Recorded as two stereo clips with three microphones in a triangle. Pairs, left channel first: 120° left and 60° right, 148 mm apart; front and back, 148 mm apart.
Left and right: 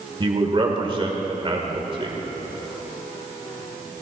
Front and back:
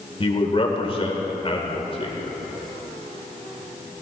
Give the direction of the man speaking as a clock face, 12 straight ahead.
1 o'clock.